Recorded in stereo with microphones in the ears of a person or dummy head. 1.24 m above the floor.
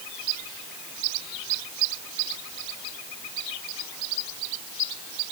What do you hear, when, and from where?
Only background noise.